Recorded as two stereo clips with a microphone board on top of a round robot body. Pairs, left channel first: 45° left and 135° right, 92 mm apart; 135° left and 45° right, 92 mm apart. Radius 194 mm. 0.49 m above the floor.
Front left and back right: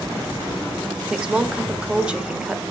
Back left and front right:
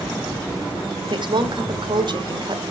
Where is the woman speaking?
55° right, 1.4 m.